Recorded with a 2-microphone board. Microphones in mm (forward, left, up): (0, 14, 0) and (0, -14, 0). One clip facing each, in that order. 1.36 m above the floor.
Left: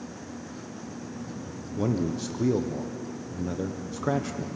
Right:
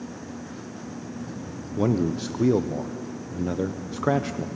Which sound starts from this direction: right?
A man speaking, at 1.8 s.